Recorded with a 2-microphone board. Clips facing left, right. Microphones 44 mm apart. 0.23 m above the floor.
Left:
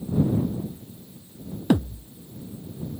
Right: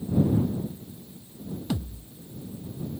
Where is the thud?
55° left (ahead or behind).